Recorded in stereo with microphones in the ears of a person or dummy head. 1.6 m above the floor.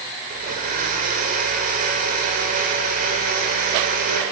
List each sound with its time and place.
0.3 s a blender: 45° right (ahead or behind), 2.5 m